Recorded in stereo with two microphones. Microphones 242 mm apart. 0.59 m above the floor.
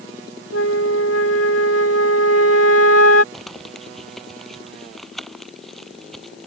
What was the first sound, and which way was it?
A flute, 70° left (ahead or behind).